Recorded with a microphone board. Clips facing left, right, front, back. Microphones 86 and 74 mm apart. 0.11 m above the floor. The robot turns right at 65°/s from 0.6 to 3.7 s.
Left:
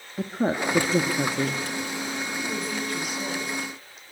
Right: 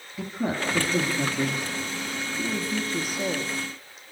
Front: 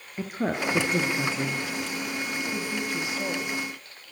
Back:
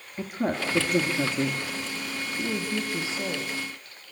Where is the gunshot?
I don't hear a gunshot.